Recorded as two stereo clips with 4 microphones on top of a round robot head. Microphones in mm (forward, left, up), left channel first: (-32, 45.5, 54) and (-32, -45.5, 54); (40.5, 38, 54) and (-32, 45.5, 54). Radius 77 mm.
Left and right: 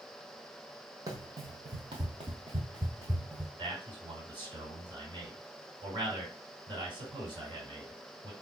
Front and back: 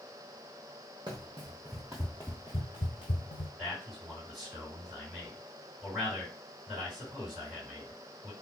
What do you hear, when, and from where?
1.1 s running footsteps: 135° right, 0.9 m; by 3.5 s 10° right, 0.9 m
3.6 s a man speaking: 100° right, 2.5 m